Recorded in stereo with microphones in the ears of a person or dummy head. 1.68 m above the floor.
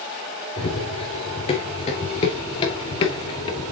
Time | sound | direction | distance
0.6 | running footsteps | 35° left (ahead or behind) | 3 m